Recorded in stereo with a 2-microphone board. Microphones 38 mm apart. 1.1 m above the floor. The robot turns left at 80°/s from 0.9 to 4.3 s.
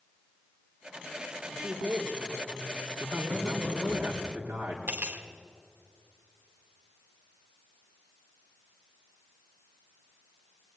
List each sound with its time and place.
1.5 s a man speaking: straight ahead, 5 m; by 4.0 s 160° left, 5 m
3.0 s a man speaking: 25° right, 3 m; by 4.8 s 130° right, 3 m
4.9 s cutlery clinking: 60° right (ahead or behind), 1.7 m